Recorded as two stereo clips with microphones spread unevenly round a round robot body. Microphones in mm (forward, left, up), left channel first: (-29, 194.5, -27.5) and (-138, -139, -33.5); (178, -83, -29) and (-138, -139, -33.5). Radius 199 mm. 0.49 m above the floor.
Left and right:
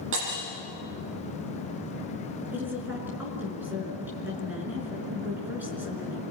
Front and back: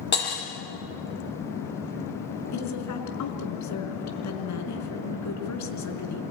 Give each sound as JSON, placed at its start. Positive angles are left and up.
{"t": 0.1, "sound": "breaking glass", "azimuth_deg": -45, "distance_m": 7.5}
{"t": 2.5, "sound": "a woman speaking", "azimuth_deg": -25, "distance_m": 4.5}